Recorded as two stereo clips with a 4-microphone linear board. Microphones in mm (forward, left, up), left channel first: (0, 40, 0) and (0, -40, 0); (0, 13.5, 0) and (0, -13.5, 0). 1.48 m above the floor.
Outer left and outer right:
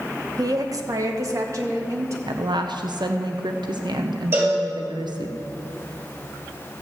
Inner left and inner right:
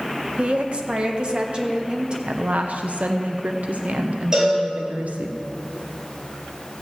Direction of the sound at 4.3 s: 30° right (ahead or behind).